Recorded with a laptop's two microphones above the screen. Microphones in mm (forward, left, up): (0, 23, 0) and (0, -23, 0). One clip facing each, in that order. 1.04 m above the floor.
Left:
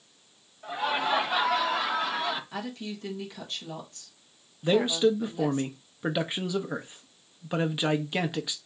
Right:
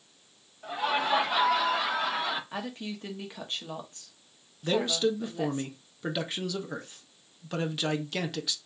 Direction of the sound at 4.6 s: 20° left (ahead or behind).